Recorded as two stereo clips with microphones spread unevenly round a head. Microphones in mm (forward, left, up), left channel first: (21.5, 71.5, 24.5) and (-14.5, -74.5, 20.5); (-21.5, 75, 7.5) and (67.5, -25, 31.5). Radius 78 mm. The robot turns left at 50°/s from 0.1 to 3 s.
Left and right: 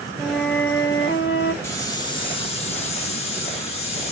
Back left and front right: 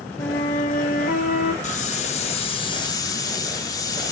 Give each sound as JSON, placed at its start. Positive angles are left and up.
{"t": 0.2, "sound": "a flute", "azimuth_deg": 165, "distance_m": 0.7}
{"t": 1.6, "sound": "a hiss", "azimuth_deg": 135, "distance_m": 0.7}